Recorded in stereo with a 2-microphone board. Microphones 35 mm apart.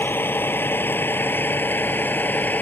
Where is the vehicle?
75° left (ahead or behind); by 2.6 s 55° left (ahead or behind).